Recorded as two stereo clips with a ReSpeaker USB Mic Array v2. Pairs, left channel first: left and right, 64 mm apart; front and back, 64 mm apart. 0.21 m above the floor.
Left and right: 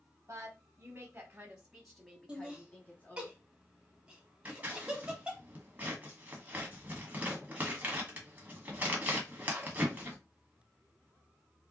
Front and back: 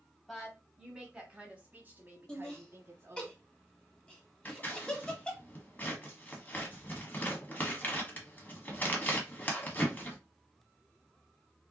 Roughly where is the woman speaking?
Right.